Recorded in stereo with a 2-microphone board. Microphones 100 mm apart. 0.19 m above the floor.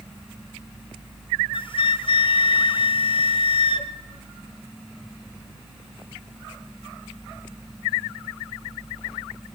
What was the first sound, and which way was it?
A flute, 55° left (ahead or behind).